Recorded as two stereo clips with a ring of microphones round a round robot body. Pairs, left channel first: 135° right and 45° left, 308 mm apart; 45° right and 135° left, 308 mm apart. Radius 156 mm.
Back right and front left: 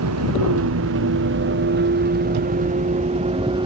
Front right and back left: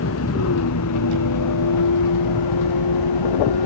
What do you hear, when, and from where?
0.0 s a vehicle: straight ahead; by 3.7 s 30° right